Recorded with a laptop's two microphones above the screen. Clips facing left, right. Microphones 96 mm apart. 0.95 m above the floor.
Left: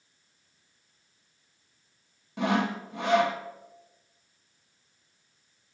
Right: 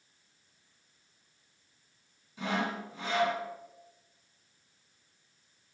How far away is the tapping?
No tapping in this recording.